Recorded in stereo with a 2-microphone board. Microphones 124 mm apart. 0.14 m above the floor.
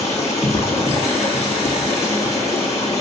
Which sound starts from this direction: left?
Running water, at 0.0 s.